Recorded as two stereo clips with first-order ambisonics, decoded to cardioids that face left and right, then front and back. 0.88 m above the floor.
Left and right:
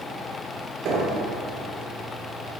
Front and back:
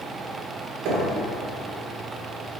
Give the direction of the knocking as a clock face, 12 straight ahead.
5 o'clock.